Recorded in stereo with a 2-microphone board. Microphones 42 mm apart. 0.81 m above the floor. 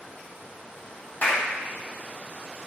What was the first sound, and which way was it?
A clap, 50° left (ahead or behind).